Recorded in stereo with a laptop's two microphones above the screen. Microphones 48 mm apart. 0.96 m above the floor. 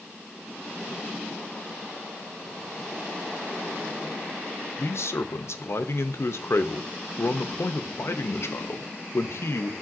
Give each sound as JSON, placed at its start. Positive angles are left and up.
{"t": 4.8, "sound": "a man speaking", "side_deg": 65, "distance_m": 0.7}